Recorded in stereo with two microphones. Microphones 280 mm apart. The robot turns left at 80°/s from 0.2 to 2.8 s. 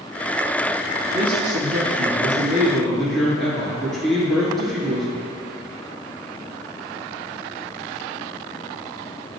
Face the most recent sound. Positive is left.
turn(degrees=180)